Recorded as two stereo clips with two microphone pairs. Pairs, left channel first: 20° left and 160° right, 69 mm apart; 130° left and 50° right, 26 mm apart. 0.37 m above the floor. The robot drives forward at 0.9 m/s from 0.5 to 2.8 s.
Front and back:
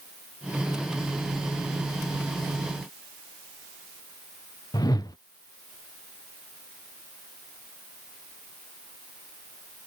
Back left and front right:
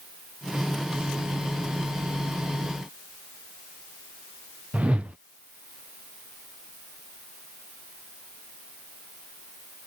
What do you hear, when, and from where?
4.7 s a whoosh: 5° right